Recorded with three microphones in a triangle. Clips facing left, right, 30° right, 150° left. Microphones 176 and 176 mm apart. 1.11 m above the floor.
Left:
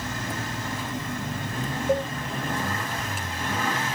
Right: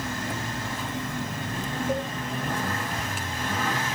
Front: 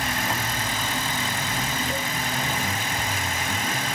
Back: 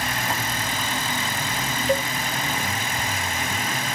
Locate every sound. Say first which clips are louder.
1.9 s a cowbell: left 5 dB, back 7 dB; 155° left, 0.6 m